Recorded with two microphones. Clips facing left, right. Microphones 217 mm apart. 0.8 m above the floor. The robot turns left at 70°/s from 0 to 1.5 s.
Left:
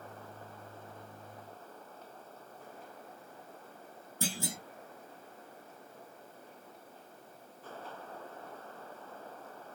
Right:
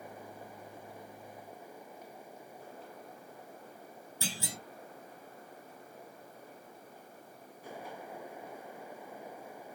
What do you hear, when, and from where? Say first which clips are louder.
4.2 s a clunk: left 4 dB; 50° left (ahead or behind), 1.2 m